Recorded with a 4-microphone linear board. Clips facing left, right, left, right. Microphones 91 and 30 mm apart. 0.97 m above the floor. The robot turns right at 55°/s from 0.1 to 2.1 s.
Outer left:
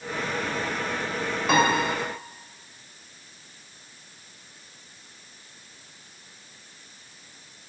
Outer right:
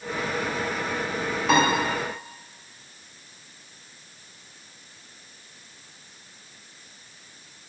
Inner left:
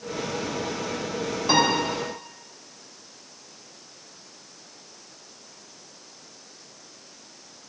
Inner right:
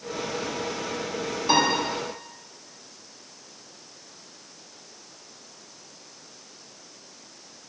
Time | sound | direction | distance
1.5 | a piano | centre (ahead or behind) | 4 m